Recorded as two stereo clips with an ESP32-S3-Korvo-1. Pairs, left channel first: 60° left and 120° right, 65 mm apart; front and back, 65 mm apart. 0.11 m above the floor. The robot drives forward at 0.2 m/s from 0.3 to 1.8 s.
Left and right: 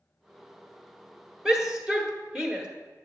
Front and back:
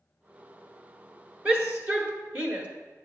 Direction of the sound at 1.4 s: 170° right.